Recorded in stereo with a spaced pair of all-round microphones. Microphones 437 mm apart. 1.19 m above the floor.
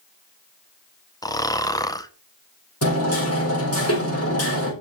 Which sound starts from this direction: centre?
Snoring, at 1.2 s.